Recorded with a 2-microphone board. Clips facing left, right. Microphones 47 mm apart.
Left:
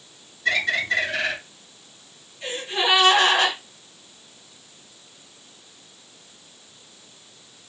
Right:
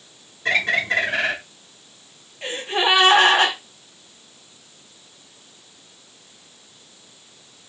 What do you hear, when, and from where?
0.5 s a bird: 35° right (ahead or behind), 1.7 m
2.4 s a gasp: 35° right (ahead or behind), 1.5 m